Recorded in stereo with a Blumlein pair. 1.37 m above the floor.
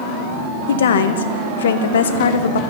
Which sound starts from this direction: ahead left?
A woman speaking, at 0.7 s.